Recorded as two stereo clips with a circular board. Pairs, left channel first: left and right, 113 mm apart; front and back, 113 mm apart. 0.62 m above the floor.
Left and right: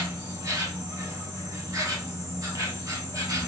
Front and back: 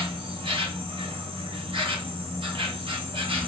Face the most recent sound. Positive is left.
turn(degrees=-145)